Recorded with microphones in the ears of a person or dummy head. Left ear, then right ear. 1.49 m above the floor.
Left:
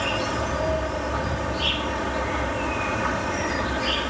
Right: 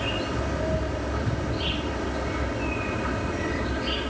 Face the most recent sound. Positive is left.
turn(degrees=45)  # may be behind; listen again after turning